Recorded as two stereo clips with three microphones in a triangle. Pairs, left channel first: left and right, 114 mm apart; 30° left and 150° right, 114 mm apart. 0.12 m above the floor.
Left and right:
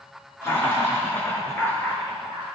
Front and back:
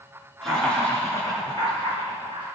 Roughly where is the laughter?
Behind left.